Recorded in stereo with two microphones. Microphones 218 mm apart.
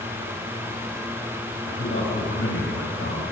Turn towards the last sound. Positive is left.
turn(degrees=85)